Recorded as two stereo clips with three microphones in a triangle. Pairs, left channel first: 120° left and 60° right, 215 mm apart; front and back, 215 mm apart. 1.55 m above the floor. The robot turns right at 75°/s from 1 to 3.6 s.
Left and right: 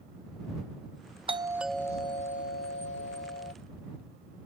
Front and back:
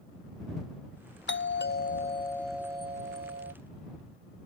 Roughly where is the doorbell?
Ahead.